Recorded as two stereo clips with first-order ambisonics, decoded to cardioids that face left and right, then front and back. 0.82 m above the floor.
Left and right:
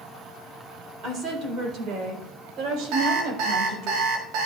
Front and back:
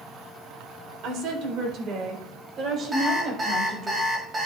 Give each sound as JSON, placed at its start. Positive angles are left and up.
{"t": 1.0, "sound": "a woman speaking", "azimuth_deg": -150, "distance_m": 3.5}
{"t": 2.9, "sound": "an alarm clock", "azimuth_deg": -105, "distance_m": 2.5}